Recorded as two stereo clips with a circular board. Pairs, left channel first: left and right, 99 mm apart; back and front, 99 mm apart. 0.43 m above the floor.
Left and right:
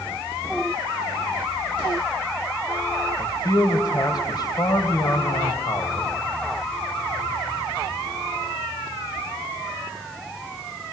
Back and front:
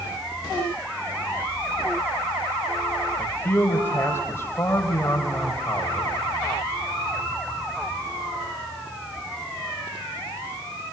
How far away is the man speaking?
About 2.5 m.